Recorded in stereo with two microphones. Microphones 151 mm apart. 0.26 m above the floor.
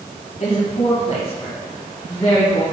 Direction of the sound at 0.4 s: 50° left (ahead or behind).